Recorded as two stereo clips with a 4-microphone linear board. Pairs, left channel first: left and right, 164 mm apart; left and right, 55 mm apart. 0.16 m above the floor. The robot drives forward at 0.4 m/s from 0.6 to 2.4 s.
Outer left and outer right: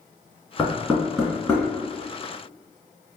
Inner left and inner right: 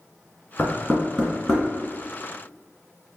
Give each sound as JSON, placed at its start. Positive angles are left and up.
{"t": 0.6, "sound": "knocking", "side_deg": 5, "distance_m": 1.9}